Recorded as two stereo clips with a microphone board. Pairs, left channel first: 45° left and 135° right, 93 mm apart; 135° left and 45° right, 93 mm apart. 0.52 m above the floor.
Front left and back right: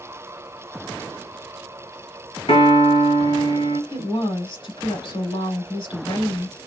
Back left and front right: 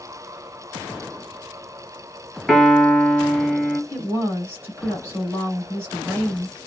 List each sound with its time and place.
2.5 s a piano: 45° left, 2 m
3.9 s a woman speaking: 20° left, 3.5 m